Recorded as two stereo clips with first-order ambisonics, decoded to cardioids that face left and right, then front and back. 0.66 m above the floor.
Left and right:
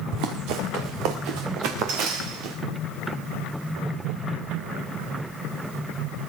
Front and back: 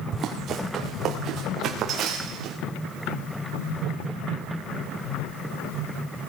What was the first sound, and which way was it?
Running footsteps, 125° right.